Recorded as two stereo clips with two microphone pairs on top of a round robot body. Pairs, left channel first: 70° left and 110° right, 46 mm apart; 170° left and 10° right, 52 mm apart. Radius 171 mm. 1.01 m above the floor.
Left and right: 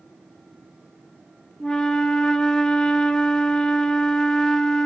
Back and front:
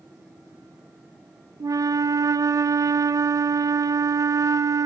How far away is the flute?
About 1.0 m.